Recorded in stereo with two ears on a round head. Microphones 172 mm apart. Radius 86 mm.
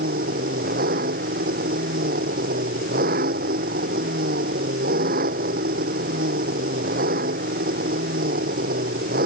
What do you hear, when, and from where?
0.0 s an engine running: 50° right (ahead or behind)